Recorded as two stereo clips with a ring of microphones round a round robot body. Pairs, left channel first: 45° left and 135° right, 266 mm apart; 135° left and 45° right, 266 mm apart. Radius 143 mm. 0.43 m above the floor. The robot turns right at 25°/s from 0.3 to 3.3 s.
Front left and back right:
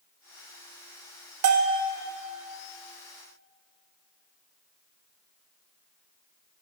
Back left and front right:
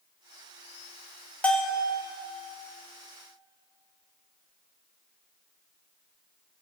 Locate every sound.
1.4 s a bell: 140° right, 0.7 m; by 1.8 s 130° right, 0.7 m